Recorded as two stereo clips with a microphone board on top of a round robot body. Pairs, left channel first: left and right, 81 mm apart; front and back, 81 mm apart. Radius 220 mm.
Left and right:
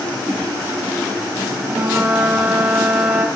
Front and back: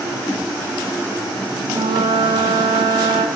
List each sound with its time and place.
1.7 s a flute: 160° right, 2.5 m